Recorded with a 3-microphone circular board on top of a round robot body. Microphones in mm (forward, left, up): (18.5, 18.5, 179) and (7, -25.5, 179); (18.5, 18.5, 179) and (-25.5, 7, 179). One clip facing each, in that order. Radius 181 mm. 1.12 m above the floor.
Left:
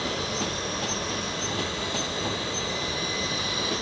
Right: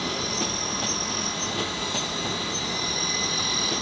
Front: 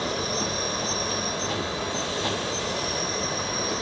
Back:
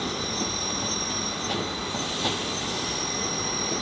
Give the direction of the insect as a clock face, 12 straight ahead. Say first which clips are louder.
Even, front 2 dB; 12 o'clock.